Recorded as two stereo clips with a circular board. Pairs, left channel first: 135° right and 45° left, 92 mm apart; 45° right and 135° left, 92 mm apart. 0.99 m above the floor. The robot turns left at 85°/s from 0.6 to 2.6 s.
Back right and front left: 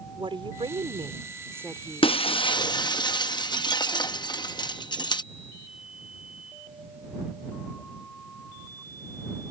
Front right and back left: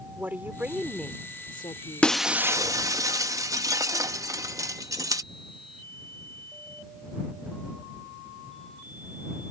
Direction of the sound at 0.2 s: 65° left.